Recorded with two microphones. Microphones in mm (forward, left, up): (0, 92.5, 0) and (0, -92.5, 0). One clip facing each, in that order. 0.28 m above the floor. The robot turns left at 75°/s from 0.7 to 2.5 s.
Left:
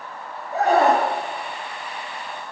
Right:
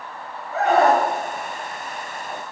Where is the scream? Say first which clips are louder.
Even; 15° left (ahead or behind), 4 m; by 1.1 s 15° right (ahead or behind), 4 m.